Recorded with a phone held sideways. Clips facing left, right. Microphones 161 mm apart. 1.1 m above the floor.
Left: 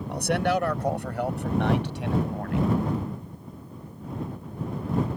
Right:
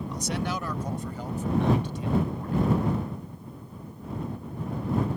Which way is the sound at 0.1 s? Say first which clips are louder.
Left 9 dB; 65° left (ahead or behind).